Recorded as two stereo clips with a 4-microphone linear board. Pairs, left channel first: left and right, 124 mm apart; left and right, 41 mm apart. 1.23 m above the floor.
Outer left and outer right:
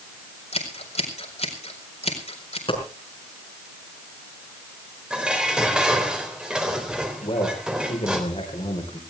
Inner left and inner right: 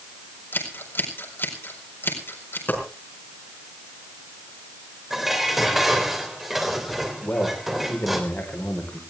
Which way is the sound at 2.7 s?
45° left (ahead or behind).